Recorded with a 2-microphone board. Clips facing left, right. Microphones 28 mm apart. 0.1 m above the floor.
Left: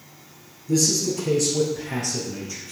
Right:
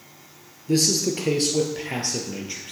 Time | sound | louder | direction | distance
0.7 | a man speaking | even | 45° right (ahead or behind) | 1.6 m